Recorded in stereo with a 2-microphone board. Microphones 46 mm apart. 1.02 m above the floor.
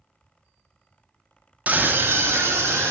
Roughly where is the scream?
Right.